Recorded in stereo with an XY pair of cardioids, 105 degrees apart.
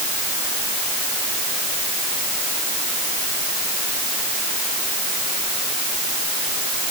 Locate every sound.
Only background noise.